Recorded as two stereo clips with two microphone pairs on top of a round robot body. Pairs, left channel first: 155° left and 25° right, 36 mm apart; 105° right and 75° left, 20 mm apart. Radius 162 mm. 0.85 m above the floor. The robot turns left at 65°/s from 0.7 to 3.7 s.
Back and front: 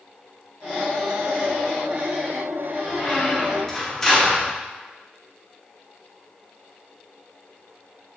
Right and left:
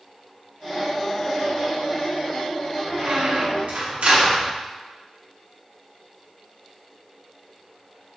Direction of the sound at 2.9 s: 130° left.